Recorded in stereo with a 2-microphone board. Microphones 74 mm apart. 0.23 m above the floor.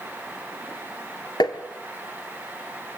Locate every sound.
1.4 s tapping: 75° left (ahead or behind), 1.3 m